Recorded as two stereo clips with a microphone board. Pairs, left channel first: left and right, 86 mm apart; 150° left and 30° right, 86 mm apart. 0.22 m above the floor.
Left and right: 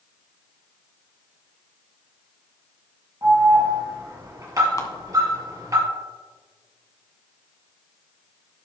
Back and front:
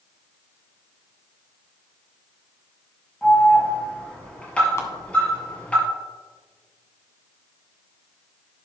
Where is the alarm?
135° right, 5 m.